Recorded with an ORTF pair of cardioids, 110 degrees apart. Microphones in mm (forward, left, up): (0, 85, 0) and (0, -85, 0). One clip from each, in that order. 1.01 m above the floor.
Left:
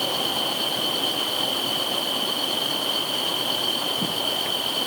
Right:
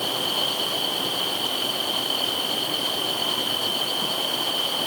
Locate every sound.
Only background noise.